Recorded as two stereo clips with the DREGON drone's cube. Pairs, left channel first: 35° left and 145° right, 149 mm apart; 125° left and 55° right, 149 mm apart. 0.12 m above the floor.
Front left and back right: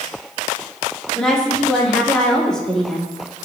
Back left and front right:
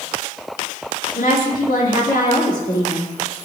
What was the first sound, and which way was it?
A woman speaking, 120° left.